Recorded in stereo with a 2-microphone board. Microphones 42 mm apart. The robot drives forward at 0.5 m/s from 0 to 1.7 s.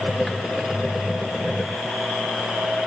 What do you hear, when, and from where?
Only background noise.